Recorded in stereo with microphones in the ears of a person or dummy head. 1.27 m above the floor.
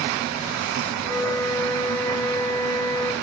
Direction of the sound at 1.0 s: 10° left (ahead or behind).